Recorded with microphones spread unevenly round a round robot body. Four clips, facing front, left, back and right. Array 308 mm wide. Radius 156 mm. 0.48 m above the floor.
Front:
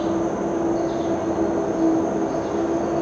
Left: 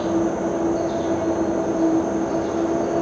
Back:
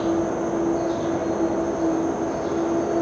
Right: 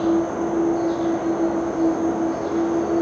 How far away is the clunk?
No clunk in this recording.